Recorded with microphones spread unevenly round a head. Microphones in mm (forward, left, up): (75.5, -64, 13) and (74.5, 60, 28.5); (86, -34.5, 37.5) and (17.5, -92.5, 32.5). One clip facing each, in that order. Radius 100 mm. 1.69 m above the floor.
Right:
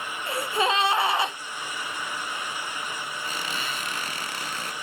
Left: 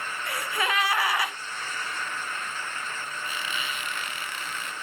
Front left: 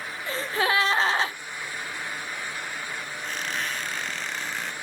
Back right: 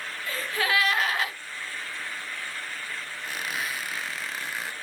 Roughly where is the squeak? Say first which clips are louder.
Right 1 dB, front left 1 dB; ahead right.